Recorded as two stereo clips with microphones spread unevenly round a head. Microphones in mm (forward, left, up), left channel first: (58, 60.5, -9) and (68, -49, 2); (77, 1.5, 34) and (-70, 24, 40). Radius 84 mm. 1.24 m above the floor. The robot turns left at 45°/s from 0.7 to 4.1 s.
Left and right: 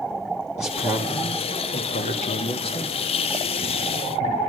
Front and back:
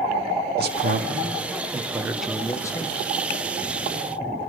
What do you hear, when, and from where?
0.6 s a man speaking: 150° left, 1.9 m; by 2.9 s 50° left, 1.9 m